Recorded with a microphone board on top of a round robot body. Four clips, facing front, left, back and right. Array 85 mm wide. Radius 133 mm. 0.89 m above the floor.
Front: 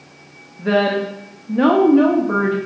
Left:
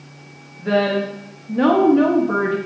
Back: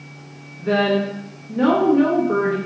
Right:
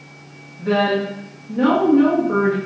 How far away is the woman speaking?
About 1.4 m.